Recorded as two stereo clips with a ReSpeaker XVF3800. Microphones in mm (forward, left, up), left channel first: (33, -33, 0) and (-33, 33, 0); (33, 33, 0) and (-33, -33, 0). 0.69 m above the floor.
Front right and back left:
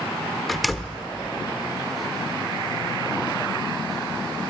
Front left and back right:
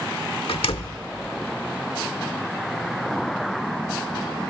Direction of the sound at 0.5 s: 45° left.